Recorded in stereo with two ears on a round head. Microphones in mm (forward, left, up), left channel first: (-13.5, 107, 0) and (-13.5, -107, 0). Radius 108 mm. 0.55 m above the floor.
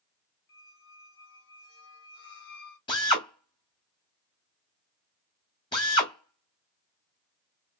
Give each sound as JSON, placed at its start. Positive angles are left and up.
{"t": 0.5, "sound": "a squeak", "side_deg": 55, "distance_m": 2.5}
{"t": 2.9, "sound": "a drill", "side_deg": 20, "distance_m": 1.6}